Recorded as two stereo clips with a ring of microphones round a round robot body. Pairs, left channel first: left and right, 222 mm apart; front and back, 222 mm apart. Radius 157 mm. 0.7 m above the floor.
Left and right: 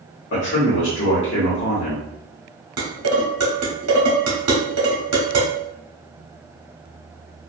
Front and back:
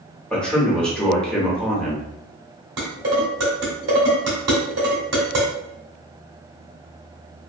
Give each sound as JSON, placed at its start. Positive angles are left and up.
{"t": 0.3, "sound": "a man speaking", "azimuth_deg": 85, "distance_m": 1.4}
{"t": 2.8, "sound": "dishes clattering", "azimuth_deg": -125, "distance_m": 0.8}